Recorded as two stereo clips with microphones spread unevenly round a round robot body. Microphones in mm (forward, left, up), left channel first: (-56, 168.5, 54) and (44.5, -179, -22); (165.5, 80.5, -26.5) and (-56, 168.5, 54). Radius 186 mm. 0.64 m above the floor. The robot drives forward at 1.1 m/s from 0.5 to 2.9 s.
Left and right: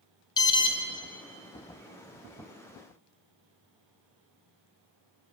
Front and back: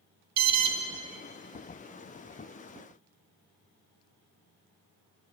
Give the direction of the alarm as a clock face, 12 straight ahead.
6 o'clock.